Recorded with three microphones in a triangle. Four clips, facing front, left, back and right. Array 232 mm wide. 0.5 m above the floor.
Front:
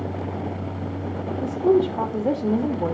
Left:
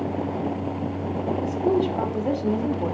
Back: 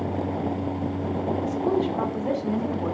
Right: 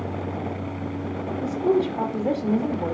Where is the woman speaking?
15° right, 1.6 m.